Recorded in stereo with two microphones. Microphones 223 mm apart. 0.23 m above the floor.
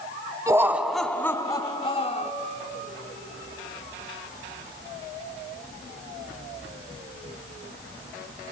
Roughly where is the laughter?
Centre.